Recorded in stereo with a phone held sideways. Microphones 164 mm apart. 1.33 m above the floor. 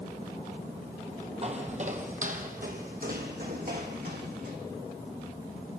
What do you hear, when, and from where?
1.4 s footsteps: 40° right (ahead or behind), 2 m; by 4.6 s 70° right (ahead or behind), 4 m